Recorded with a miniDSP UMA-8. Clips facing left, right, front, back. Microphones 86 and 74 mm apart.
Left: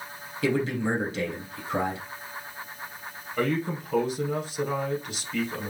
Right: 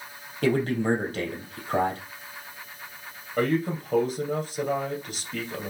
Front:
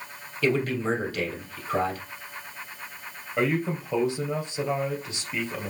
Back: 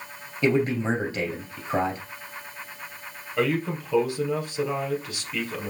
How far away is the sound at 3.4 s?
About 3 m.